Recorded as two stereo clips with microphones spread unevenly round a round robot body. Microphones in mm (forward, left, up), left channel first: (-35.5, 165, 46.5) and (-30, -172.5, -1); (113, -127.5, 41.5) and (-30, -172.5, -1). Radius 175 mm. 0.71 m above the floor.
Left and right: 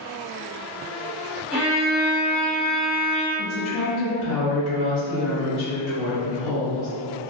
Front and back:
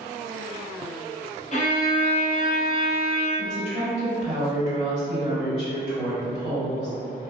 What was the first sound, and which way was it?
A violin, 15° right.